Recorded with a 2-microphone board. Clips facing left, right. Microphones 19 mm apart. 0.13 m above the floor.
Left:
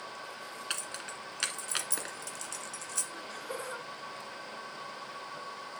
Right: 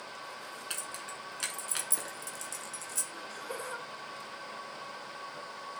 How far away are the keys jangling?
About 0.9 m.